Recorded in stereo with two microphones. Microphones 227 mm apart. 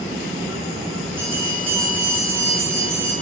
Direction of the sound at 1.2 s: 10° right (ahead or behind).